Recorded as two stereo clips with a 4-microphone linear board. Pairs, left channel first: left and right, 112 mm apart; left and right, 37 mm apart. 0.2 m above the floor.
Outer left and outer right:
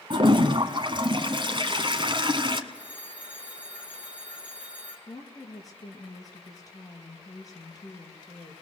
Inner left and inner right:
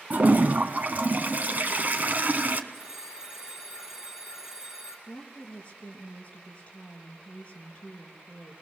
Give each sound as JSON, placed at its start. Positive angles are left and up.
{"t": 0.1, "sound": "a toilet flushing", "side_deg": -45, "distance_m": 1.8}
{"t": 2.7, "sound": "a phone ringing", "side_deg": -10, "distance_m": 3.0}
{"t": 5.1, "sound": "a woman speaking", "side_deg": 30, "distance_m": 4.5}